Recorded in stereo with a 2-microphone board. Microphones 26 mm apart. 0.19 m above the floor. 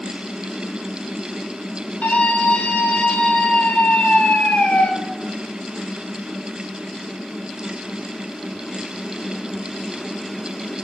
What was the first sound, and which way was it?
A scream, 80° left.